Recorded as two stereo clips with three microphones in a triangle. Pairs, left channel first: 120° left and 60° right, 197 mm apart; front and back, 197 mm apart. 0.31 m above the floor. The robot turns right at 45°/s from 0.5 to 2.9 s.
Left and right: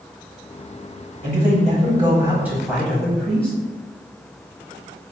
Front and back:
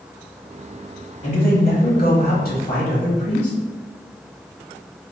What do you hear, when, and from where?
1.2 s a man speaking: 35° right, 1.3 m; by 3.5 s 40° left, 1.3 m